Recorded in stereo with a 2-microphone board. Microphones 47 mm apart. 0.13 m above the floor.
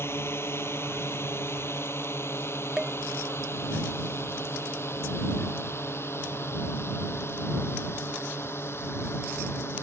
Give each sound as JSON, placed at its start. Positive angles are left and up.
{"t": 0.0, "sound": "a drone", "side_deg": 60}
{"t": 2.8, "sound": "dishes clattering", "side_deg": -15}